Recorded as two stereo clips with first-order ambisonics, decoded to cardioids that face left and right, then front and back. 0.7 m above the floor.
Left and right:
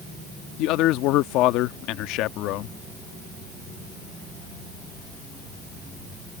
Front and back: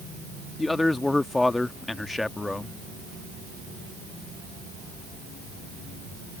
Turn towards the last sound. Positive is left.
turn(degrees=80)